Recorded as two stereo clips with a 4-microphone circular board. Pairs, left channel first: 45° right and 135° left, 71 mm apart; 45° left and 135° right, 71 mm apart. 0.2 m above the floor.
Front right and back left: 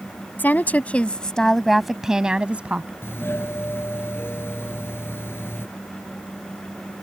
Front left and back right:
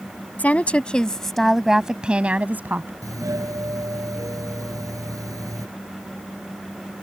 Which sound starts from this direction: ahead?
A woman speaking, at 0.4 s.